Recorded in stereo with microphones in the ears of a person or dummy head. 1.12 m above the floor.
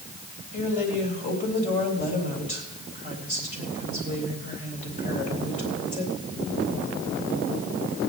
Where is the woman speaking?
45° left (ahead or behind), 3.5 m.